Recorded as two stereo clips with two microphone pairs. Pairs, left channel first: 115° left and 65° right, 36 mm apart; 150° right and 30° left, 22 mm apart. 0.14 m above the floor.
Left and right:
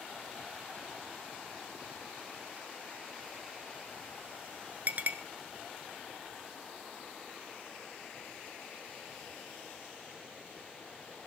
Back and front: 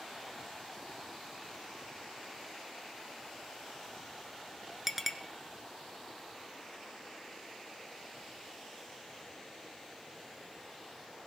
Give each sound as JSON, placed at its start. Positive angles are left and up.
{"t": 4.9, "sound": "a clink", "azimuth_deg": -45, "distance_m": 1.1}